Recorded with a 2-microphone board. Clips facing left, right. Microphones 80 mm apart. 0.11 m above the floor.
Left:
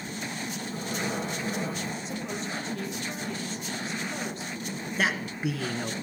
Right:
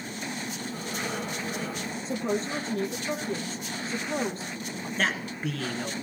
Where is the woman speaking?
40° right (ahead or behind), 2.5 m.